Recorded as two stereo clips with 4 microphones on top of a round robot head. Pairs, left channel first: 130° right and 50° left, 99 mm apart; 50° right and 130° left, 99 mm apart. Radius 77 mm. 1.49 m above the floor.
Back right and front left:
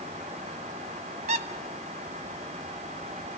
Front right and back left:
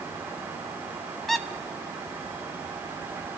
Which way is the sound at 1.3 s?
35° left.